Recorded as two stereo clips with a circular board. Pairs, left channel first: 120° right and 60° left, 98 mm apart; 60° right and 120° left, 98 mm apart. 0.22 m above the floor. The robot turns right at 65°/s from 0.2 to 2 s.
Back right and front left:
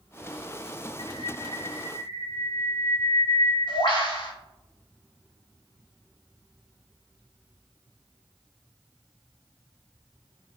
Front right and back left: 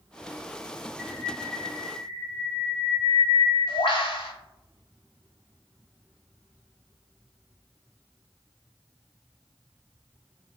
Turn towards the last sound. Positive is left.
turn(degrees=-85)